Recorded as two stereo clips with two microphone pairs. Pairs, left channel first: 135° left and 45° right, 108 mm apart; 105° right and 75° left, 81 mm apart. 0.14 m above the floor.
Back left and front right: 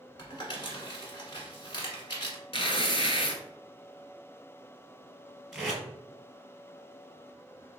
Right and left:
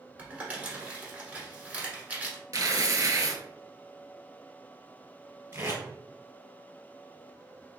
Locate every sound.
0.2 s crumpling: 135° left, 1.3 m
2.5 s tearing paper: 110° left, 0.6 m
5.5 s tape being pulled: 40° left, 1.9 m